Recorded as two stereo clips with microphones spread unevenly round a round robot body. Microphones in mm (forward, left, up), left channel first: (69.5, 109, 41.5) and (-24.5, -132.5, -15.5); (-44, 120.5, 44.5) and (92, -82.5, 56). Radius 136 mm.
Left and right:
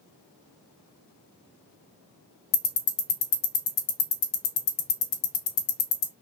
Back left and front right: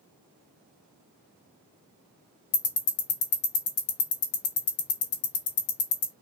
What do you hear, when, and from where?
2.5 s ticking: 80° left, 0.6 m